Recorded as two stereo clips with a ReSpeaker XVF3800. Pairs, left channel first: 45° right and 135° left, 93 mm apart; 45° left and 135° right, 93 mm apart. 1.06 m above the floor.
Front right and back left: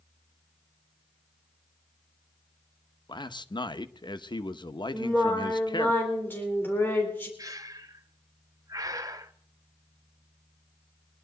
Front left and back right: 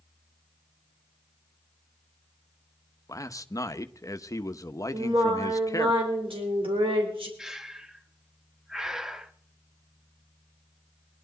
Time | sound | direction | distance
3.1 | a man speaking | 10° right | 0.9 m
4.9 | singing | 115° right | 4 m
7.4 | breathing | 145° left | 0.9 m